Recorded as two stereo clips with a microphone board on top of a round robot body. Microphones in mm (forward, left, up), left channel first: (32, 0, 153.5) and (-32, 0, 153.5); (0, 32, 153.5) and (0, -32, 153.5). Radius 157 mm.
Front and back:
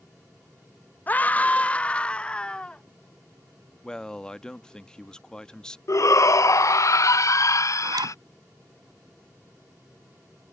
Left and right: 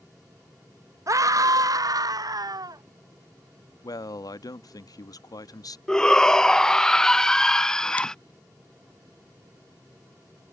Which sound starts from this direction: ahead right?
A scream, at 1.1 s.